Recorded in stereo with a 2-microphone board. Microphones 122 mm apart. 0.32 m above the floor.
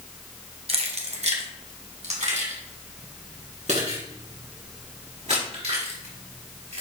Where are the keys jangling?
55° right (ahead or behind), 1.2 m; by 6.8 s 65° right (ahead or behind), 5 m.